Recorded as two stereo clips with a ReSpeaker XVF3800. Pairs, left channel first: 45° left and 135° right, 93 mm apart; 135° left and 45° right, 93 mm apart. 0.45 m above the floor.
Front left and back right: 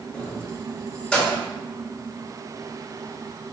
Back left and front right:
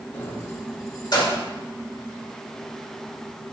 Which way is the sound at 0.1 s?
95° left.